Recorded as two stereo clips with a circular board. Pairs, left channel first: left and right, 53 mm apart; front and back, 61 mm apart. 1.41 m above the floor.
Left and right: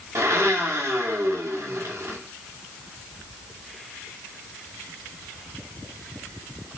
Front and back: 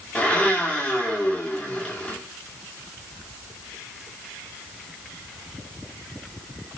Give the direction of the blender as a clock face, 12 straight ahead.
2 o'clock.